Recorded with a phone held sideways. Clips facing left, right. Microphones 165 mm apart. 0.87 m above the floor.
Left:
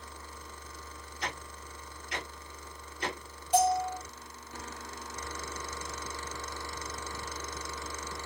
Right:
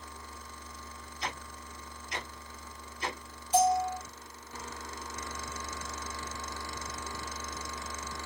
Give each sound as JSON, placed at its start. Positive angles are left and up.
{"t": 1.2, "sound": "ticking", "side_deg": 60, "distance_m": 2.0}
{"t": 3.5, "sound": "a bell", "side_deg": 65, "distance_m": 1.8}